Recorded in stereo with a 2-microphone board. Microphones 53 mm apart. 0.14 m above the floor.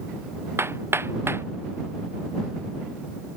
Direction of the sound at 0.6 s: 50° right (ahead or behind).